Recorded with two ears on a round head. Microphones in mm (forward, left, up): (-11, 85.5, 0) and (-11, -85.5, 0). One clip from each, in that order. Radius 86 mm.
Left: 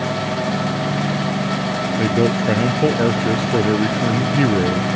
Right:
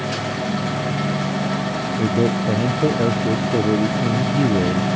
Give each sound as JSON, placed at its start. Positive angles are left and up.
{"t": 2.0, "sound": "a man speaking", "side_deg": 55}